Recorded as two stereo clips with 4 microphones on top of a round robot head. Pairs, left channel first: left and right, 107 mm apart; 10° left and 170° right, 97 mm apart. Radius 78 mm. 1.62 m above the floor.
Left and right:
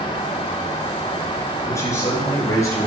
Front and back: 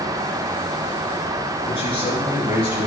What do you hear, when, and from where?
1.7 s a man speaking: 30° left, 3 m